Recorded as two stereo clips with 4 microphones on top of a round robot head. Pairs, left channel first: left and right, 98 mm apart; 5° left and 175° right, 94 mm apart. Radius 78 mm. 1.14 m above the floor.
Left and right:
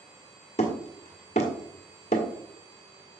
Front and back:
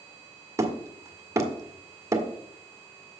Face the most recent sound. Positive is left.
turn(degrees=135)